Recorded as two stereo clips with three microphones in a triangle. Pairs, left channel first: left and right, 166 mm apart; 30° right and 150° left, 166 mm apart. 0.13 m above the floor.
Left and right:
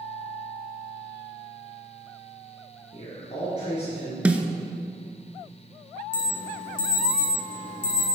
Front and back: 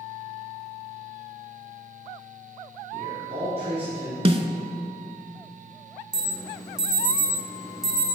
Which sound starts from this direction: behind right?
An alarm, at 6.1 s.